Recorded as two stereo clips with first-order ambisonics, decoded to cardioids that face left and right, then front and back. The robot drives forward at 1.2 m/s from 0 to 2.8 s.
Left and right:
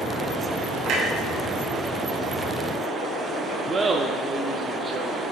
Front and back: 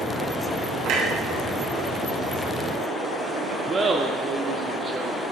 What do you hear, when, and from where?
0.8 s a clunk: 140° right, 3.5 m; by 3.6 s 155° right, 5.5 m
3.7 s laughter: 135° right, 0.8 m